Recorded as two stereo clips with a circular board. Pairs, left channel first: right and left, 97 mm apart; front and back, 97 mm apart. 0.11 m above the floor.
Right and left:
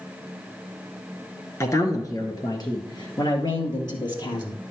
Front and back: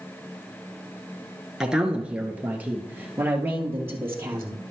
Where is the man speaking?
100° right, 1.2 m; by 4.6 s 120° right, 2.5 m.